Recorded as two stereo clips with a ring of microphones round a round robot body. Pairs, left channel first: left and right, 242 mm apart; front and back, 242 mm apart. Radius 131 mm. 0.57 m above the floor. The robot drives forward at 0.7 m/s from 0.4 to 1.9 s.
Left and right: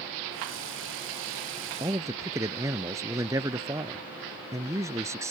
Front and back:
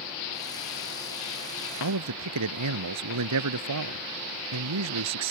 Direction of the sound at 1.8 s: 170° right.